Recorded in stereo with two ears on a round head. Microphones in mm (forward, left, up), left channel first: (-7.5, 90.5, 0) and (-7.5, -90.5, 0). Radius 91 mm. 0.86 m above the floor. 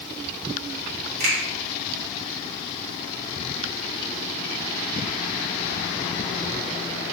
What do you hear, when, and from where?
1.2 s a finger snap: 35° right (ahead or behind), 1.2 m